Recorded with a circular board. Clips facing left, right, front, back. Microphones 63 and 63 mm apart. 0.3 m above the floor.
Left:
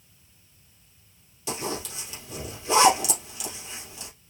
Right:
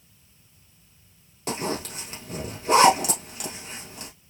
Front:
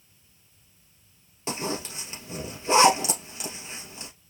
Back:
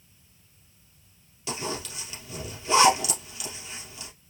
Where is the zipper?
55° right, 2.5 m.